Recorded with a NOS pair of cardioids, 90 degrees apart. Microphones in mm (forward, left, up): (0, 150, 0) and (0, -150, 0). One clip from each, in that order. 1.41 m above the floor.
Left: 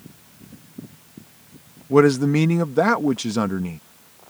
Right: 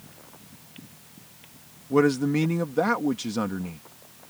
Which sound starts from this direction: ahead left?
A man speaking, at 1.9 s.